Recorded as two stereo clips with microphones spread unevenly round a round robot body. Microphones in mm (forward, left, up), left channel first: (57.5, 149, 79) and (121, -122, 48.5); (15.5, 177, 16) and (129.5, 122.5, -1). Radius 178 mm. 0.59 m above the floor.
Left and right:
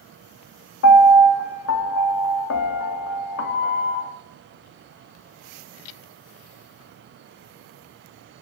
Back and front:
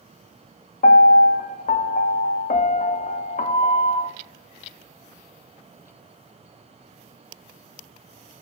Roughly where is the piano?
Behind left.